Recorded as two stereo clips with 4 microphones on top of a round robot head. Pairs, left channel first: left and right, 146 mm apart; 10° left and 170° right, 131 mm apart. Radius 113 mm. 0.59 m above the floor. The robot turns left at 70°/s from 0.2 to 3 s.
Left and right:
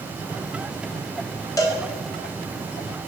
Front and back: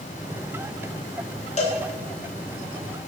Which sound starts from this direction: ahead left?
A cowbell, at 1.6 s.